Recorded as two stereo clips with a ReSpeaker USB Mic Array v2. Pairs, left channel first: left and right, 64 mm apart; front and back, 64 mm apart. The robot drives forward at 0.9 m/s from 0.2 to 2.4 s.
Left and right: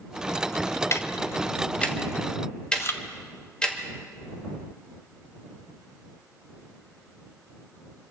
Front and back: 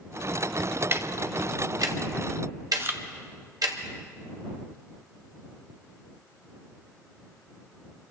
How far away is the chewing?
About 0.9 m.